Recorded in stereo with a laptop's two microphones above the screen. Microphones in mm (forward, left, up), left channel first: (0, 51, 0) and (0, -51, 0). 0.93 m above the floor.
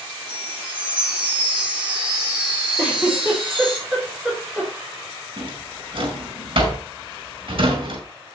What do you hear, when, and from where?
0.3 s a chime: 55° right (ahead or behind), 8 m
2.8 s a giggle: 10° right (ahead or behind), 3.5 m
5.4 s a drawer: 65° right (ahead or behind), 5 m